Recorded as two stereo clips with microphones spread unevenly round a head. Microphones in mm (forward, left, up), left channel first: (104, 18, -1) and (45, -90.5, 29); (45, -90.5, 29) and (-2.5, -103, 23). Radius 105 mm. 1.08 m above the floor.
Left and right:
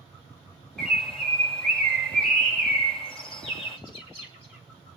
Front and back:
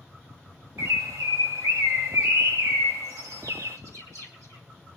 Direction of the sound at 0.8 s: 160° left.